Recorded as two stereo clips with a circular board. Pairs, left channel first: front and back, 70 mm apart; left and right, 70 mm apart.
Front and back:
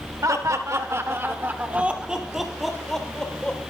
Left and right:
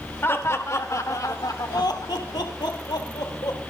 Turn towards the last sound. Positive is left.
turn(degrees=75)